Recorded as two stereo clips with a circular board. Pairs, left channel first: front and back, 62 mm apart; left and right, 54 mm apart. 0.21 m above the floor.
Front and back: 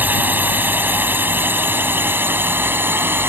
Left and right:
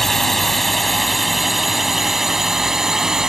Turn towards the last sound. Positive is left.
turn(degrees=-165)